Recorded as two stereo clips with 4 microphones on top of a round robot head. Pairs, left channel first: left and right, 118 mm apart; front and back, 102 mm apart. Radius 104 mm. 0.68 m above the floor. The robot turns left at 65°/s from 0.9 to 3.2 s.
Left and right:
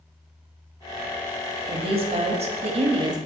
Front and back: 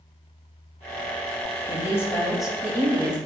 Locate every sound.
1.7 s a woman speaking: 45° right, 0.9 m; by 3.2 s 145° right, 0.9 m